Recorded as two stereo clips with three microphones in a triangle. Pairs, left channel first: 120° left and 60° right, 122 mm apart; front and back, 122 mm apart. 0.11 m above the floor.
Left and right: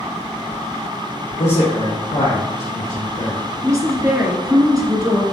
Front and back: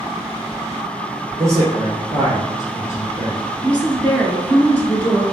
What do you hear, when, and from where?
1.4 s a man speaking: 120° left, 2.5 m; by 3.4 s 80° left, 3 m
3.6 s a woman speaking: 65° right, 1.7 m